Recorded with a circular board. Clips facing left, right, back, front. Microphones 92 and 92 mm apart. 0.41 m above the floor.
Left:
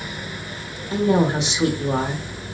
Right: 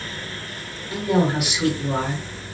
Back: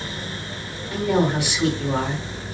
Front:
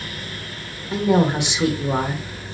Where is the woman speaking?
50° left, 0.9 m.